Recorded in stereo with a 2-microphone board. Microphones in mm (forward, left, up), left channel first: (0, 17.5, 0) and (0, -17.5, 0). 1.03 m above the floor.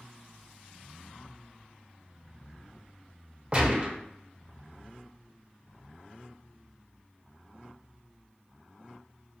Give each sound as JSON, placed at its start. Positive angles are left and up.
{"t": 3.5, "sound": "a gunshot", "side_deg": -35, "distance_m": 0.7}